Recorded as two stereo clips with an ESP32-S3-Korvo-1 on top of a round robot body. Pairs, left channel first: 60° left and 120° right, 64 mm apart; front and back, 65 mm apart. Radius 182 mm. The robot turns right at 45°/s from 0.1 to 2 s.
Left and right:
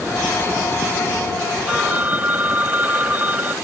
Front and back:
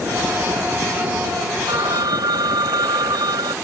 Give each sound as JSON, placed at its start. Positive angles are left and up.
{"t": 1.7, "sound": "a phone ringing", "azimuth_deg": 165}